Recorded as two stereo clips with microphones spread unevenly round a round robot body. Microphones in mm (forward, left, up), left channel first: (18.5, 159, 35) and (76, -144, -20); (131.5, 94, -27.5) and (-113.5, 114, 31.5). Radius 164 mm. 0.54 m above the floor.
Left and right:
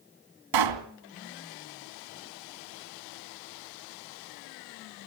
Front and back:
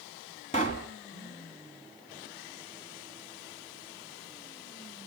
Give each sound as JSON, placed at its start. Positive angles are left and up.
{"t": 0.5, "sound": "a pop", "azimuth_deg": -75, "distance_m": 2.5}